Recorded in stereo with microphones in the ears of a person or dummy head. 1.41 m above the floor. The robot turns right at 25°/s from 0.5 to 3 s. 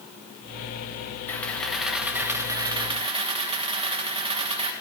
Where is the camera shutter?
170° left, 1.5 m; by 4.7 s 145° right, 1.5 m.